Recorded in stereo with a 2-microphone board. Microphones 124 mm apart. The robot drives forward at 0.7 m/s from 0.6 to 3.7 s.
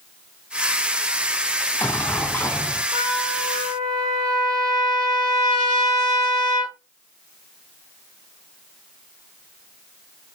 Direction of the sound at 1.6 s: 15° left (ahead or behind).